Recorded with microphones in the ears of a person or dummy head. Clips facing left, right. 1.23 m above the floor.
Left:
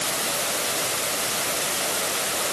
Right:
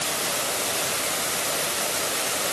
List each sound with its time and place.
Only background noise.